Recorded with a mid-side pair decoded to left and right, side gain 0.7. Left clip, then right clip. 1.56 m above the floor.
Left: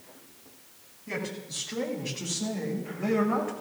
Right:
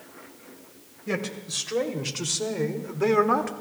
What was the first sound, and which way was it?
A man speaking, 50° right.